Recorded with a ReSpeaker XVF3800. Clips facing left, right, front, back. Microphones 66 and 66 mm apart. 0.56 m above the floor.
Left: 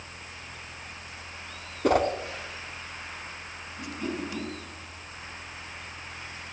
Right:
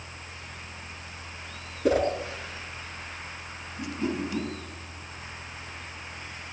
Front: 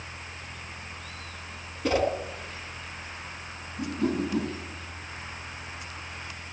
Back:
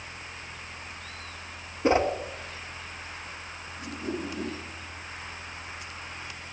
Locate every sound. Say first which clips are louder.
1.8 s a whoosh: even, back 2 dB; 115° left, 2.5 m
3.8 s a whoosh: right 3 dB, front 6 dB; 5° right, 4 m